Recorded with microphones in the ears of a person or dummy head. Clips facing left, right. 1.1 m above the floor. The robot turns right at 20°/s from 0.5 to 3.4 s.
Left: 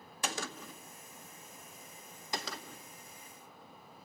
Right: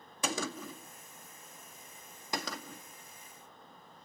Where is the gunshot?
75° right (ahead or behind), 2.0 m; by 2.8 s 35° right (ahead or behind), 2.0 m.